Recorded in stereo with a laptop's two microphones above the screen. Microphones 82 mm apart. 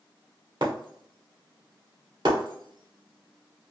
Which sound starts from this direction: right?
Breaking glass, at 0.6 s.